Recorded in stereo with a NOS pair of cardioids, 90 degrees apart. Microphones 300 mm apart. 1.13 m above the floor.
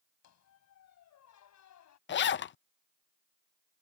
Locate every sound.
0.2 s a squeak: 65° left
2.1 s a zipper: 40° left